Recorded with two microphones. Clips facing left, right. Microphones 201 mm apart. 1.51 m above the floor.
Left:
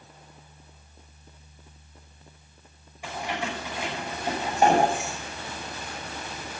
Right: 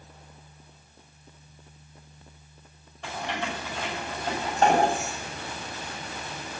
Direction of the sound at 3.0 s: 10° left (ahead or behind).